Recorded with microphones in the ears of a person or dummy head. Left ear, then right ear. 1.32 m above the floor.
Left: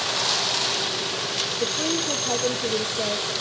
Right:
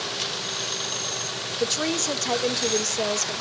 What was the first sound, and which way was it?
A woman speaking, 70° right (ahead or behind).